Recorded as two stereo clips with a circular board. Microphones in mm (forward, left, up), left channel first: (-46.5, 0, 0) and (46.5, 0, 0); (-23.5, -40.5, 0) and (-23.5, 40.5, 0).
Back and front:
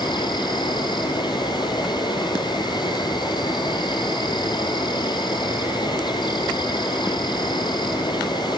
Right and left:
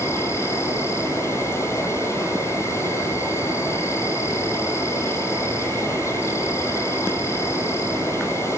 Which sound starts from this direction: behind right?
An insect, at 0.0 s.